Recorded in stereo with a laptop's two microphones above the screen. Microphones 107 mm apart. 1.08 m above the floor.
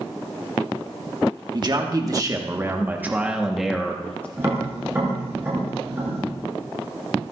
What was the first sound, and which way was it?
A man speaking, 45° right (ahead or behind).